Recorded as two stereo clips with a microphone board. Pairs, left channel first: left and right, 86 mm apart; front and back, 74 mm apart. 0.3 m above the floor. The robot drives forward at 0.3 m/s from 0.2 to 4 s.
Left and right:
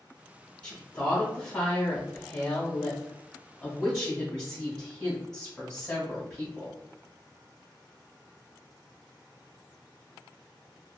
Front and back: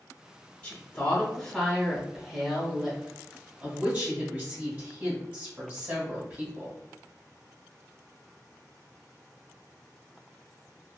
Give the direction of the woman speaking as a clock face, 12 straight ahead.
11 o'clock.